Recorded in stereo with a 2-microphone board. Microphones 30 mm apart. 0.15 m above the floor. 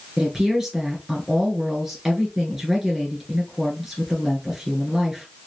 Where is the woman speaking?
10° right (ahead or behind), 3 m.